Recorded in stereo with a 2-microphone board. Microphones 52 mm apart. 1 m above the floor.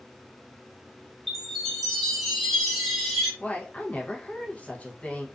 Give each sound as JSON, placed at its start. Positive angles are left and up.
{"t": 1.3, "sound": "a chime", "side_deg": 5, "distance_m": 0.9}
{"t": 3.4, "sound": "a woman speaking", "side_deg": 30, "distance_m": 0.6}